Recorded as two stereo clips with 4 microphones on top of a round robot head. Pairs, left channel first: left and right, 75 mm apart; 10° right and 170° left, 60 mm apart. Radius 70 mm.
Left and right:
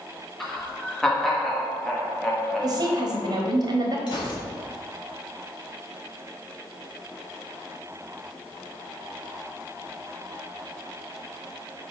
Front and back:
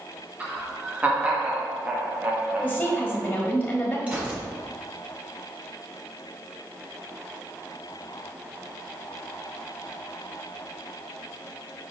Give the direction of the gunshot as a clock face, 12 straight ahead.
9 o'clock.